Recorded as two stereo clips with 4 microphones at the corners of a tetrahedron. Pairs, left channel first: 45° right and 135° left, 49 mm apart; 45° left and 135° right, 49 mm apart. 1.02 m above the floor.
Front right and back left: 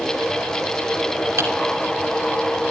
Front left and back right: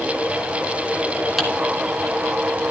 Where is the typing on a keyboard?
140° left, 2.5 m.